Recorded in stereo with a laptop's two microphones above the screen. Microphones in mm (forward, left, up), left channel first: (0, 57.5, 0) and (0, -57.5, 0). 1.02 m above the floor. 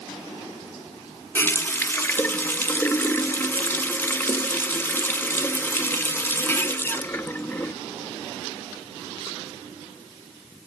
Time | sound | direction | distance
1.4 | a running tap | 20° left (ahead or behind) | 0.6 m